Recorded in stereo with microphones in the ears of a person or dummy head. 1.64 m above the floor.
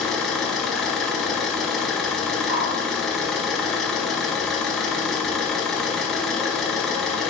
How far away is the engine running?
About 1.1 m.